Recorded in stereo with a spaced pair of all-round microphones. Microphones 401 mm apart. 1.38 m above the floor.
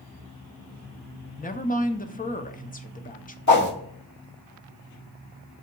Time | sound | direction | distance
1.4 | a woman speaking | 20° left (ahead or behind) | 0.5 m
3.5 | a whoosh | 45° left (ahead or behind) | 1.5 m